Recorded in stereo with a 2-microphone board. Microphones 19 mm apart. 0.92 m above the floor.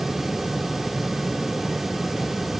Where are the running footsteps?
No running footsteps in this recording.